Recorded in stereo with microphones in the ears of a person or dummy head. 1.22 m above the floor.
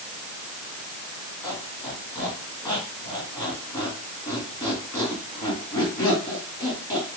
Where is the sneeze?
No sneeze in this recording.